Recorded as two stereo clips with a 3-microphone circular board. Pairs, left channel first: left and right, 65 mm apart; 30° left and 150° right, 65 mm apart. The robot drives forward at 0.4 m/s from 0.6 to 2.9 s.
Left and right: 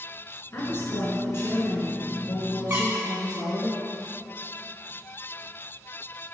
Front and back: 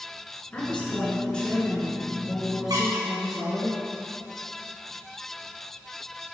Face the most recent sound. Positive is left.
turn(degrees=-150)